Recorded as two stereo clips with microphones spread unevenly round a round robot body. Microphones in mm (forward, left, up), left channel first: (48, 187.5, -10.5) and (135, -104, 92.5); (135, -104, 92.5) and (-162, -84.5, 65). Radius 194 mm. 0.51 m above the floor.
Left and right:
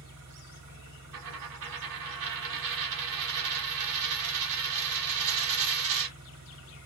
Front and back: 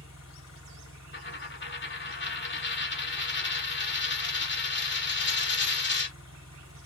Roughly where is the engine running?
Ahead right.